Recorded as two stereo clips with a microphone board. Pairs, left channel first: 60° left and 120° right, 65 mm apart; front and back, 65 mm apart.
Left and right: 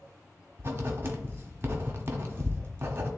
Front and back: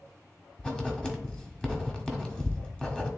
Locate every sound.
0.6 s writing: 75° right, 1.4 m